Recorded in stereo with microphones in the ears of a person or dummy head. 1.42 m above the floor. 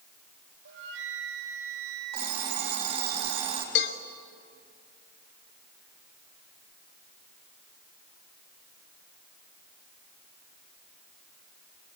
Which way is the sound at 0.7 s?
65° right (ahead or behind).